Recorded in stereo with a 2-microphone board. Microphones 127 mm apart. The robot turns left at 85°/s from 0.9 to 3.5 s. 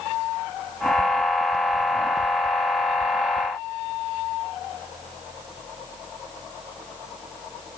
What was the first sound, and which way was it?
Only background noise.